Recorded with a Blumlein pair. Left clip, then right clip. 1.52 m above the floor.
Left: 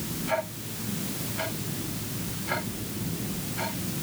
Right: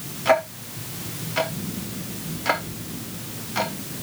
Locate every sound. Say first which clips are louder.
0.2 s ticking: right 10 dB; 45° right, 3 m